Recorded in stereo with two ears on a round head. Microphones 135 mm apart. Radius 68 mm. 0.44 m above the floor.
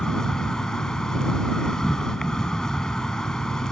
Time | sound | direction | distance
0.0 | an insect | 5° left (ahead or behind) | ?